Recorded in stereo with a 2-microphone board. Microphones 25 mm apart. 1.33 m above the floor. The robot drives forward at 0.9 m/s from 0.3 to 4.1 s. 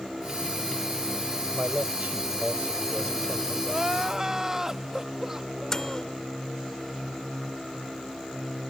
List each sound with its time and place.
1.5 s a man speaking: 85° right; by 3.5 s 80° right
3.6 s crying: 30° right (ahead or behind); by 6.2 s 25° right (ahead or behind)
5.7 s a microwave: 20° left (ahead or behind)